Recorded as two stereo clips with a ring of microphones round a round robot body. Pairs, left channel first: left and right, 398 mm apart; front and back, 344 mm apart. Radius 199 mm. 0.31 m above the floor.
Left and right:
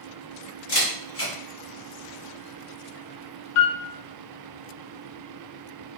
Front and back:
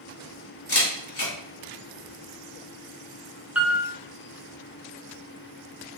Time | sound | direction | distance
0.7 | a camera shutter | 40° left | 1.4 m
3.5 | a piano | 95° left | 0.7 m